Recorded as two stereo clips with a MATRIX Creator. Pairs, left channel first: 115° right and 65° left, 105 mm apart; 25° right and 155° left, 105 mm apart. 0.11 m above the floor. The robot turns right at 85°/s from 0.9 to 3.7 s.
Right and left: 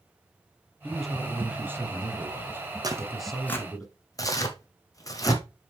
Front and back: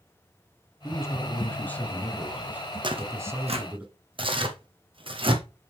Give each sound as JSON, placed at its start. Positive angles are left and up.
{"t": 0.8, "sound": "a man speaking", "azimuth_deg": -40, "distance_m": 1.7}
{"t": 2.8, "sound": "tearing paper", "azimuth_deg": 115, "distance_m": 1.3}